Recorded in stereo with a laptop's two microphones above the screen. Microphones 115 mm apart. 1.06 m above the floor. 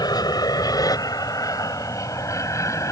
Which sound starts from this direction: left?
An aircraft, at 0.0 s.